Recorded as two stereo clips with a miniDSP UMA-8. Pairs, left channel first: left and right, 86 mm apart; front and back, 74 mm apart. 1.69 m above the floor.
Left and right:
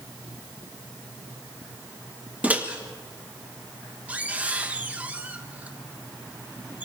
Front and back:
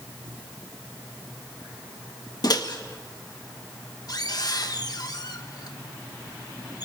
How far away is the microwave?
About 1.4 m.